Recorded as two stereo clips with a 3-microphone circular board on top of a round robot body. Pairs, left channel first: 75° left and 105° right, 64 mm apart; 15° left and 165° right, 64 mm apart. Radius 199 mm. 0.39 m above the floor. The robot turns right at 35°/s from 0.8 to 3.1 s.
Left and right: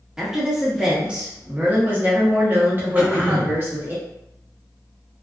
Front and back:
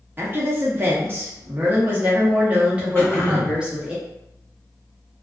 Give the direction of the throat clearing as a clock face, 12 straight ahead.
1 o'clock.